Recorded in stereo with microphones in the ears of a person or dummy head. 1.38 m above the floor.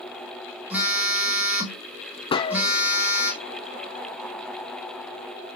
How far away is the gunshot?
About 0.8 m.